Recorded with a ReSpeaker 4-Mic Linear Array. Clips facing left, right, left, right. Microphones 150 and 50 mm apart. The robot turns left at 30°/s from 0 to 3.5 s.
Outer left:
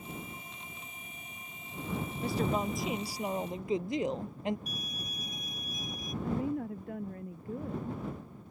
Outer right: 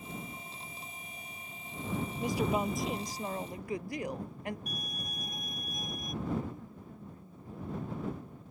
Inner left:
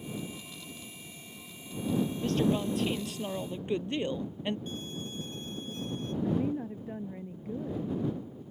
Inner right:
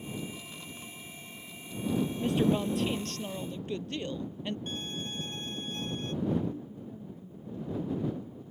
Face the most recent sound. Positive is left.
turn(degrees=85)